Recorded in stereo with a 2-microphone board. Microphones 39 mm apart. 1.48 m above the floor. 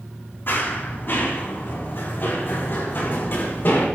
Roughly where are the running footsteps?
Left.